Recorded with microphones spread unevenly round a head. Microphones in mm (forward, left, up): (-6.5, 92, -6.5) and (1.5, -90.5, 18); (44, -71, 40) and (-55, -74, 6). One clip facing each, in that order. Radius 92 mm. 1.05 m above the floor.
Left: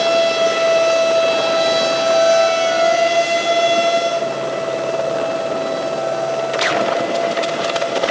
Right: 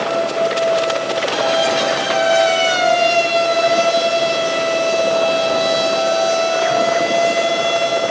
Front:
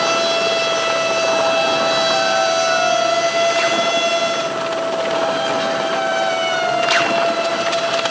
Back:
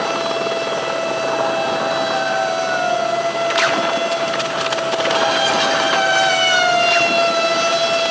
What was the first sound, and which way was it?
Only background noise.